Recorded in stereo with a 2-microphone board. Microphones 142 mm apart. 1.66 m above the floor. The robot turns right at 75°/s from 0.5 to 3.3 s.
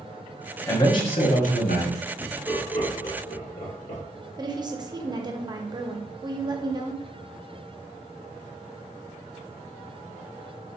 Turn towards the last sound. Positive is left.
turn(degrees=-30)  # may be behind; listen again after turning